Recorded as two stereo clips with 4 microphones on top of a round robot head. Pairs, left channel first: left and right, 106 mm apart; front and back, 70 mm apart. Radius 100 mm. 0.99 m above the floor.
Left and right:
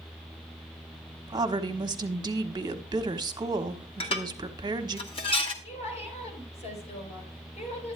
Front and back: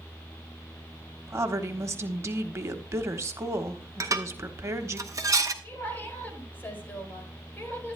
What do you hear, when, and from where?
1.3 s a woman speaking: 135° right, 1.2 m
4.0 s dishes clattering: 135° left, 1.3 m
5.6 s a woman speaking: 65° left, 4.5 m